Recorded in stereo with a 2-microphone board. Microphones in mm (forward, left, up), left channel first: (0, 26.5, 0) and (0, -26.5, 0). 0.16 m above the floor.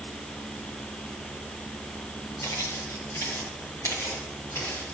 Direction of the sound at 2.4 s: 65° left (ahead or behind).